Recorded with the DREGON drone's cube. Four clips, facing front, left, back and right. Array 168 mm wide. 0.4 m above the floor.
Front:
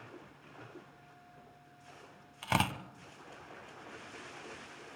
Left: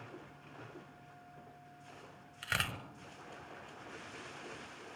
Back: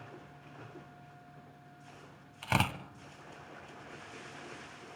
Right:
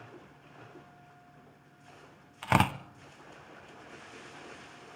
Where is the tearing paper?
85° right, 1.0 m.